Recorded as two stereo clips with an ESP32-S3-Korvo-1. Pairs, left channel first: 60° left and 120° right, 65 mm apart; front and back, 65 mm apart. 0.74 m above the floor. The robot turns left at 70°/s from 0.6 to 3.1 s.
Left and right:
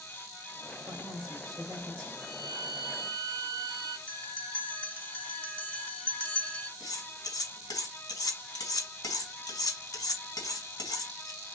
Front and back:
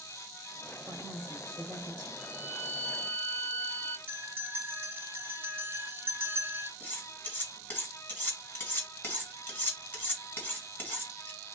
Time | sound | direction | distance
0.9 | a woman speaking | 120° right | 3.5 m
2.2 | a violin | 135° left | 1.8 m
4.1 | a bell | 125° left | 1.2 m
6.8 | cutlery clinking | 65° left | 2.5 m